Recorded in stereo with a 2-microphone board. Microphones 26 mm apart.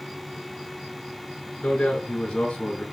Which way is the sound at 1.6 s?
70° left (ahead or behind).